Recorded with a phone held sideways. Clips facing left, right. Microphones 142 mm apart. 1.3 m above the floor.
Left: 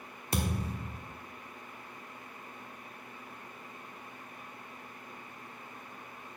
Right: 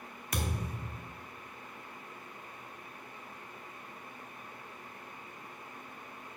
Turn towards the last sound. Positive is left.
turn(degrees=30)  # may be behind; listen again after turning